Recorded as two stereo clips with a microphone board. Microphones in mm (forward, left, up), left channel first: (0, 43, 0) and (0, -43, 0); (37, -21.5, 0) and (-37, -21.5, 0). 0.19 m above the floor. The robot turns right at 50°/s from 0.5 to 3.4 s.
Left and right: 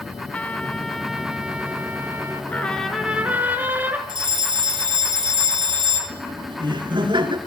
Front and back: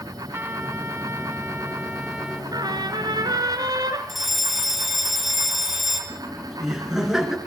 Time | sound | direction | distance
0.3 | a trumpet | 155° left | 1.0 m
2.5 | a trumpet | 160° left | 2.5 m
4.1 | a fire alarm | 90° right | 4.5 m
6.1 | laughter | 95° right | 3 m